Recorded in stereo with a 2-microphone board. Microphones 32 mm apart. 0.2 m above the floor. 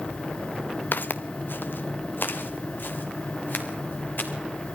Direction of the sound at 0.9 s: 70° left (ahead or behind).